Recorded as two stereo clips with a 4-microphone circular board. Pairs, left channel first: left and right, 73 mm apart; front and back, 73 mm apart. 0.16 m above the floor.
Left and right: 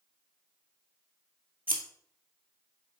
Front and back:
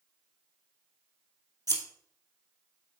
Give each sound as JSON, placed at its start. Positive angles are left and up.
{"t": 1.7, "sound": "scissors", "azimuth_deg": -155, "distance_m": 2.0}